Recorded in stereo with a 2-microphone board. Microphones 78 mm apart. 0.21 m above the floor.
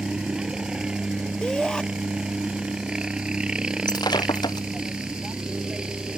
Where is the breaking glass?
70° left (ahead or behind).